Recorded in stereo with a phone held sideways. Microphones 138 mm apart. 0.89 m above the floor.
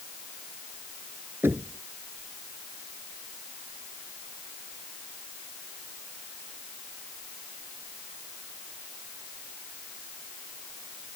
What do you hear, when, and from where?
1.4 s knocking: 15° right (ahead or behind)